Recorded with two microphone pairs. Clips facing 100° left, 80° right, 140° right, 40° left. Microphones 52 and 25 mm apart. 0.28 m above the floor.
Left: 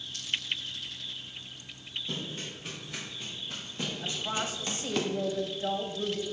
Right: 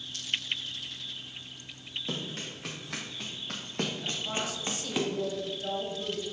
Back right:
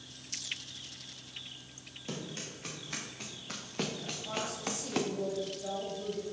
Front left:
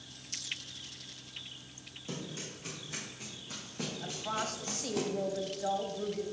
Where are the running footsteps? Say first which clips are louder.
Right 2 dB, back right 1 dB; 75° right, 3 m; by 5.0 s 165° right, 1.3 m.